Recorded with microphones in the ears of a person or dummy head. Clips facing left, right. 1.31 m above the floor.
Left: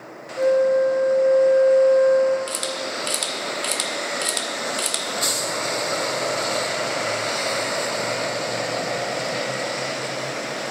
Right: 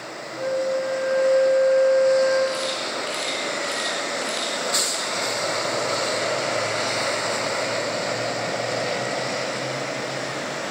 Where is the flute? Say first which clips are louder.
Left 7 dB; 55° left (ahead or behind), 0.8 m.